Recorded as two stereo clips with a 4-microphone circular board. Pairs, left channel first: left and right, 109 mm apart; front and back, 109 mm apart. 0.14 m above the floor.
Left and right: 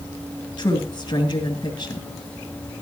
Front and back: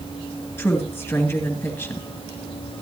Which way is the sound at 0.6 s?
60° left.